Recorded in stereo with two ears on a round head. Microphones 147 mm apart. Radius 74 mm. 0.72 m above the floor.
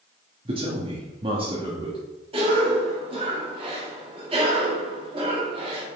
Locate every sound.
0.5 s a man speaking: 30° right (ahead or behind), 1.2 m
2.3 s a cough: 35° right (ahead or behind), 2.0 m